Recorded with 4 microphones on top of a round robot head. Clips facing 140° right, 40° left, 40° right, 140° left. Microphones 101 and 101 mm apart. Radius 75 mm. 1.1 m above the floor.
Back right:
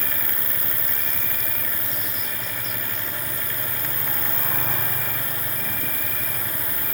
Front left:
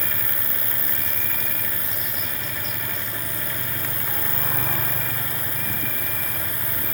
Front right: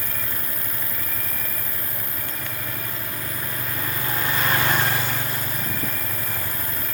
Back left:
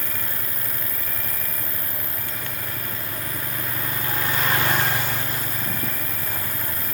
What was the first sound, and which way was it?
An insect, 135° left.